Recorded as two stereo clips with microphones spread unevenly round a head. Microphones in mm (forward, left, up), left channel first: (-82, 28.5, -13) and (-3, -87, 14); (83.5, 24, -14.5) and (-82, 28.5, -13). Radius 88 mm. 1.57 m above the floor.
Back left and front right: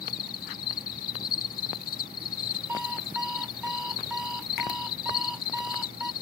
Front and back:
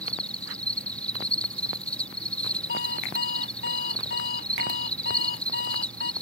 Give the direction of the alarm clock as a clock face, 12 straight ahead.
11 o'clock.